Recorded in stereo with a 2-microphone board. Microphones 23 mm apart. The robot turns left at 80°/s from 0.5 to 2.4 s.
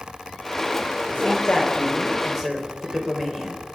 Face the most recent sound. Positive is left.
turn(degrees=-10)